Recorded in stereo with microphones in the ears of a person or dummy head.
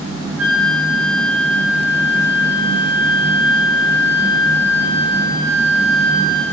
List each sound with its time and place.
0.4 s a flute: 5° right (ahead or behind), 0.9 m